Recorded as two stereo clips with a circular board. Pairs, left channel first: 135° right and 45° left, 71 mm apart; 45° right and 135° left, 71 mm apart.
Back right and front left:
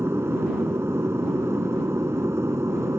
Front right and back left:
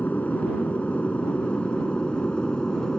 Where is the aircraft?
15° left; by 3.0 s 30° left.